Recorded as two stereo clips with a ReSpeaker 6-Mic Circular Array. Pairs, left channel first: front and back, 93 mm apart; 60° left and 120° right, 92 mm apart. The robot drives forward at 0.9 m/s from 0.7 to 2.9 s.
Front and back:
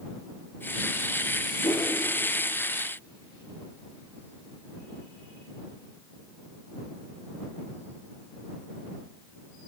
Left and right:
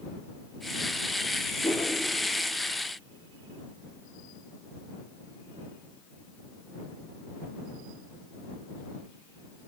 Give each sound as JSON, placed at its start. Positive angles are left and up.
{"t": 1.6, "sound": "a whoosh", "azimuth_deg": 15, "distance_m": 7.5}